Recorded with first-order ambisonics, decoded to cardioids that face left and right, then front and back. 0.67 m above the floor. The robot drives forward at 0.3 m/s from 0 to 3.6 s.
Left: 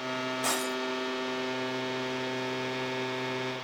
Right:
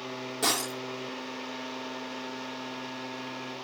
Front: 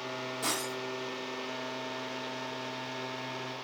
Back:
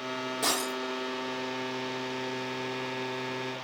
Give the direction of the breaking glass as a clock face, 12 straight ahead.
4 o'clock.